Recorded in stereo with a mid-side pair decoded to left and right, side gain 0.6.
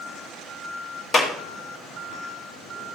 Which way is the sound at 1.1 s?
35° left.